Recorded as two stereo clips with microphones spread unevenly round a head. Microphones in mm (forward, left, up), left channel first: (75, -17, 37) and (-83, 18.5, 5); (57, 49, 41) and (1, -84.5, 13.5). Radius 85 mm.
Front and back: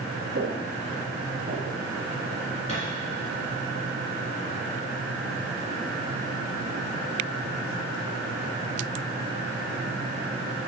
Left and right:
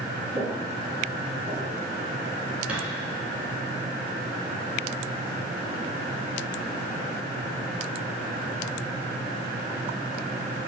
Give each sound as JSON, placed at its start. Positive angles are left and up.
{"t": 0.3, "sound": "footsteps", "azimuth_deg": 140, "distance_m": 1.7}
{"t": 2.7, "sound": "a thud", "azimuth_deg": -25, "distance_m": 2.0}